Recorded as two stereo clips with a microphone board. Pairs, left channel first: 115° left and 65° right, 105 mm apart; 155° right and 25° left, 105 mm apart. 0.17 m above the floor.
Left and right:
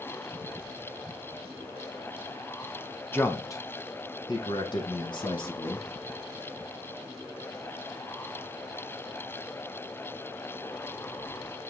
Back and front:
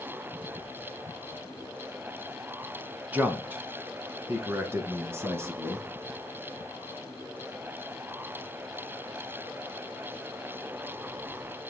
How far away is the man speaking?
About 1.1 m.